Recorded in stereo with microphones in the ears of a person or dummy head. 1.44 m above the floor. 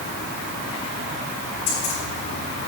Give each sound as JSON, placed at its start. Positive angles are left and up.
{"t": 1.7, "sound": "keys jangling", "side_deg": 40, "distance_m": 5.5}